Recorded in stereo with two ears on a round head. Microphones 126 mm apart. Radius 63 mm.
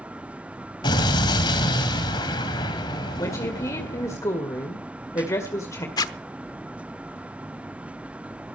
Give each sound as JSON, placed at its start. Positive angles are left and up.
{"t": 0.8, "sound": "an explosion", "side_deg": 30, "distance_m": 2.5}
{"t": 3.2, "sound": "a woman speaking", "side_deg": 20, "distance_m": 1.9}
{"t": 6.0, "sound": "a zipper", "side_deg": 25, "distance_m": 0.9}